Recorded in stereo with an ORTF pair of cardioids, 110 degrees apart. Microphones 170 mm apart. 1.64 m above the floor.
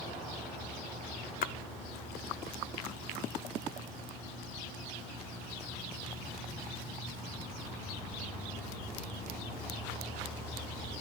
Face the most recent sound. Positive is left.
turn(degrees=55)